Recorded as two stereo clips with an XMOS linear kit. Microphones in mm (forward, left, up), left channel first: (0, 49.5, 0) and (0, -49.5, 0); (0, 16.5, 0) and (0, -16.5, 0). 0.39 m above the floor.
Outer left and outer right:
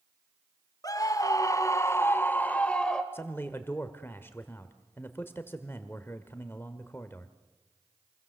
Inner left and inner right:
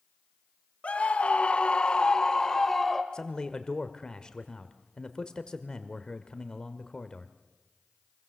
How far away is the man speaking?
About 1.3 m.